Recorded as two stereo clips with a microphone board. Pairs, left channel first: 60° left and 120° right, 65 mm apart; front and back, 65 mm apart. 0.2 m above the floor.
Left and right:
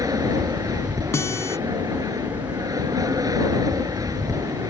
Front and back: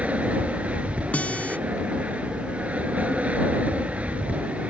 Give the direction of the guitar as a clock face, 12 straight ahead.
10 o'clock.